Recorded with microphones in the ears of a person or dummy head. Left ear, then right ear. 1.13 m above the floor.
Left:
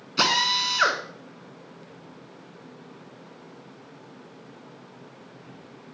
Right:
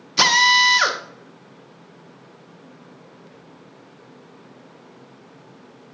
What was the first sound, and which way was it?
A drill, 25° right (ahead or behind).